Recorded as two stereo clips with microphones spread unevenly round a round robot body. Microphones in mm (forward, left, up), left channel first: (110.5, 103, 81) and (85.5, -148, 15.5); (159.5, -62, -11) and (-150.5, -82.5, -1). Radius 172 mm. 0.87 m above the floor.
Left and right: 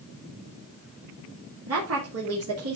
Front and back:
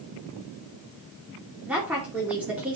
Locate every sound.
1.7 s a woman speaking: 90° right, 2.5 m